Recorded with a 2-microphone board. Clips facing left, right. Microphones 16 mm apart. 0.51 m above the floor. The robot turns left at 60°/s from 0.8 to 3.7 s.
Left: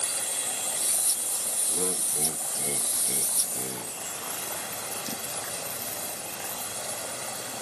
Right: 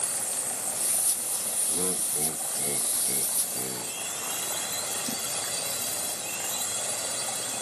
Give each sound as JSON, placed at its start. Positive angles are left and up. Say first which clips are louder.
{"t": 0.0, "sound": "a drone", "louder": "left 1 dB", "azimuth_deg": 85}
{"t": 1.7, "sound": "laughter", "louder": "left 1 dB", "azimuth_deg": 165}